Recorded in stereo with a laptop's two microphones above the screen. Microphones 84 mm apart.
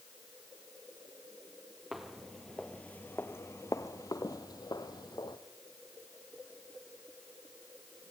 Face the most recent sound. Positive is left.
turn(degrees=55)  # may be behind; listen again after turning